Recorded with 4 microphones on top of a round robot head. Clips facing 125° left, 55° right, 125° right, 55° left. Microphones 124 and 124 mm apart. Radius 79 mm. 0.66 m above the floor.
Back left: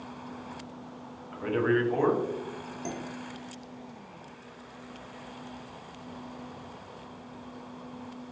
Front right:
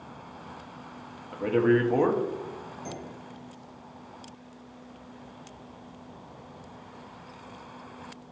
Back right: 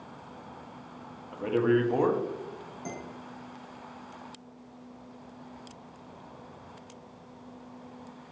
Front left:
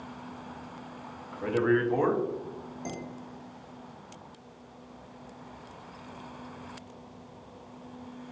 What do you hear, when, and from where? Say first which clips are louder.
1.3 s a man speaking: front right 4 dB, back right 1 dB; 65° right, 0.6 m
2.9 s dishes clattering: back left 3 dB, even; 125° left, 1.3 m